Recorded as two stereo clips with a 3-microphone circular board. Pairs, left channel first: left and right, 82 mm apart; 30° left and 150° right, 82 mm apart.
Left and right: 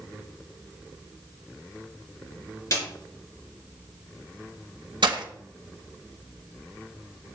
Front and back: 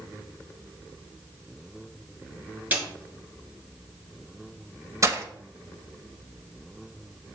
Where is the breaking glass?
100° right, 1.1 m.